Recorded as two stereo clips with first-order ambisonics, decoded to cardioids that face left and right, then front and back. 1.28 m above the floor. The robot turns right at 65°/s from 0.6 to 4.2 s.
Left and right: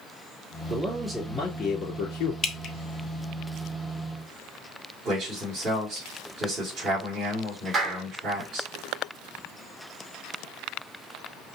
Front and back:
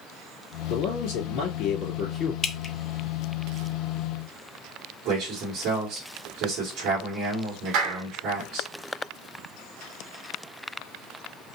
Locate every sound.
0.7 s a man speaking: 30° right, 3.5 m; by 2.3 s 80° left, 3.5 m
2.4 s dripping: 45° left, 0.6 m; by 2.7 s 65° left, 0.6 m
5.0 s a man speaking: 145° right, 2.5 m
7.7 s a clap: 150° right, 2 m